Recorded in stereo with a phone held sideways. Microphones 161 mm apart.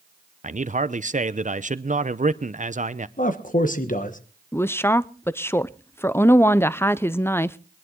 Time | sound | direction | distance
0.4 | a man speaking | 50° right (ahead or behind) | 0.7 m
3.2 | a man speaking | 55° left (ahead or behind) | 1.1 m
4.5 | a woman speaking | 15° left (ahead or behind) | 0.5 m